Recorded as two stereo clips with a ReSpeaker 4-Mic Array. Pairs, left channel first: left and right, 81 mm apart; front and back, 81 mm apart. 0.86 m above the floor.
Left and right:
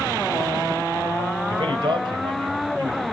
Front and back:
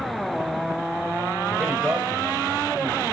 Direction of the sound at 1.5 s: 105° right.